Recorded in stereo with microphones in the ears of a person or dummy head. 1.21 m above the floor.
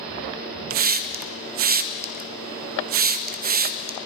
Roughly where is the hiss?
Right.